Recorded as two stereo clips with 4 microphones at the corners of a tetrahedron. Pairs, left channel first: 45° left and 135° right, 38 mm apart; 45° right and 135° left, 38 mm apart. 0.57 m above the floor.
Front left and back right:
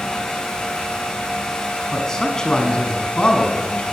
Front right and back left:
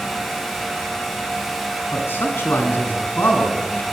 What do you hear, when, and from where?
1.9 s a man speaking: 35° right, 6 m; by 3.8 s 15° right, 5.5 m